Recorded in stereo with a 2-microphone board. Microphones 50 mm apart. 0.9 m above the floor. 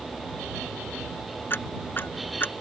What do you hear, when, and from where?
1.5 s ticking: 45° left (ahead or behind)